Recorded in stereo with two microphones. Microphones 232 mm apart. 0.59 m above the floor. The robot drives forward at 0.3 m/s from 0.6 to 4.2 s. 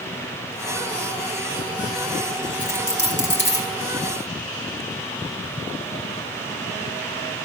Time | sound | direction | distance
2.6 | a dropped coin | 55° left (ahead or behind) | 3 m